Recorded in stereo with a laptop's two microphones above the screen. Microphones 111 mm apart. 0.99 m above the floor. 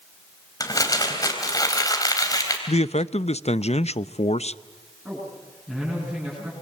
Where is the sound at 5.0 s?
15° right (ahead or behind), 7.5 m.